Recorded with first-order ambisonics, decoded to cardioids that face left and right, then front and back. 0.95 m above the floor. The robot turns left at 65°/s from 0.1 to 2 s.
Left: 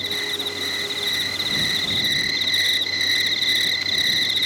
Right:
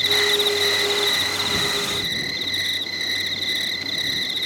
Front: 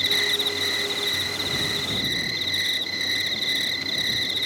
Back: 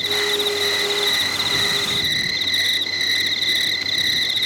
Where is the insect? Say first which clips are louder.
Right 7 dB, back 2 dB; 90° right; by 4.5 s 145° left.